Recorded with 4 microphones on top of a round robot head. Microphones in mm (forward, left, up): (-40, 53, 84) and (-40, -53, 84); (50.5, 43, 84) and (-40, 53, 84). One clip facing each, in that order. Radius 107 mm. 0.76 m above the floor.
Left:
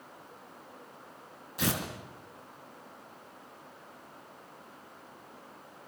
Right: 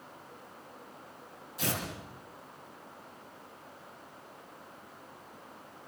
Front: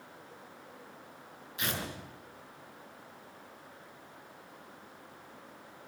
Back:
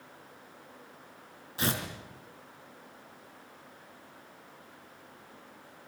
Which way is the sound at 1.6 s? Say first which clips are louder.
Left 3 dB, back 4 dB; 120° left.